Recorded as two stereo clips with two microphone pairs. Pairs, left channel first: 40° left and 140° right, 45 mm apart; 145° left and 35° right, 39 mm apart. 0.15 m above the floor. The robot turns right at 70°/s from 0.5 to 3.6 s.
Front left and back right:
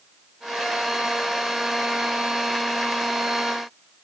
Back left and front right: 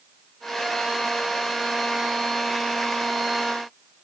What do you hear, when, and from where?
Only background noise.